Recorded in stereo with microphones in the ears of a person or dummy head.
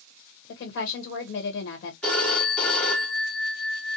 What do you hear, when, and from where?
0.5 s a woman speaking: 55° left (ahead or behind), 1.3 m
2.0 s a phone ringing: 5° left (ahead or behind), 0.8 m